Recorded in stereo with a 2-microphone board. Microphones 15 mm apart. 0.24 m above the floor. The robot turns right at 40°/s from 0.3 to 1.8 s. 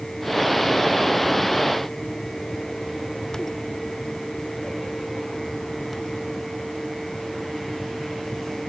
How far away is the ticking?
I don't hear ticking.